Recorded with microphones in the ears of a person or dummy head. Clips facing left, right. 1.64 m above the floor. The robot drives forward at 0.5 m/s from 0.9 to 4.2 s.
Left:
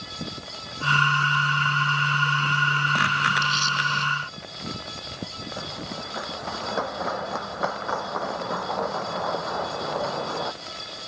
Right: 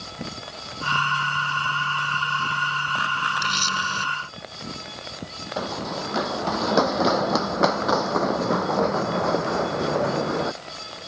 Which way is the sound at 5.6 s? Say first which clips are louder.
Right 8 dB; 65° right (ahead or behind).